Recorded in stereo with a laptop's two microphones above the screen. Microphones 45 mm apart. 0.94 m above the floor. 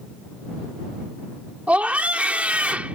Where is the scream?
35° right (ahead or behind).